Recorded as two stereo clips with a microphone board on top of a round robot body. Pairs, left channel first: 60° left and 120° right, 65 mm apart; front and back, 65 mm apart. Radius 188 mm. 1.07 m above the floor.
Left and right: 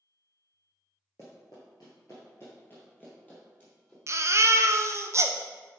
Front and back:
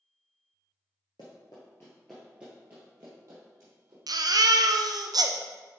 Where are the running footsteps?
5° left, 1.2 m; by 4.0 s 130° left, 2.5 m.